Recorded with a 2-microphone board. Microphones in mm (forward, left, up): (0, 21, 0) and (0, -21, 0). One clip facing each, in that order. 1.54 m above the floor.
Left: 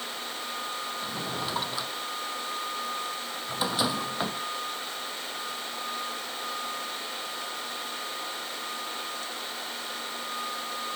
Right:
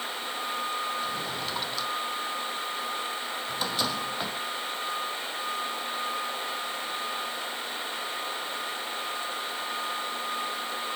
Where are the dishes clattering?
I don't hear dishes clattering.